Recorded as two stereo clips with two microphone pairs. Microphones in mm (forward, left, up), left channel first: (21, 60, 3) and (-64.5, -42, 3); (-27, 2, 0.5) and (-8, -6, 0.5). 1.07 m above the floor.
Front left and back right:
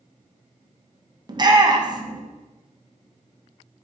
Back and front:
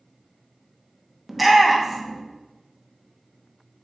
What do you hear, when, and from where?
1.3 s a shout: 100° right, 0.5 m